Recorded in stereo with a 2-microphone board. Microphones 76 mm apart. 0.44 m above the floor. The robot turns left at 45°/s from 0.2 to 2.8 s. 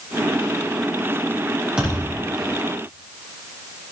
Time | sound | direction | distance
1.8 | a thud | 10° right (ahead or behind) | 6.5 m